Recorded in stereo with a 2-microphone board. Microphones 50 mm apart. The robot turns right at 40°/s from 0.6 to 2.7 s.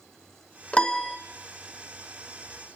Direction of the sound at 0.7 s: 25° left (ahead or behind).